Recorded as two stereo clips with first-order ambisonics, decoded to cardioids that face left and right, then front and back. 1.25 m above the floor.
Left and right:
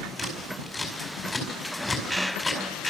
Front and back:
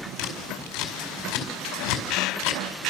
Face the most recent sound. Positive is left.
turn(degrees=10)